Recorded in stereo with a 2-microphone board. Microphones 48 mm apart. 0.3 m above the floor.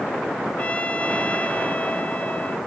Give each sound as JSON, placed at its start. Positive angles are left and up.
{"t": 0.6, "sound": "a trumpet", "side_deg": 30}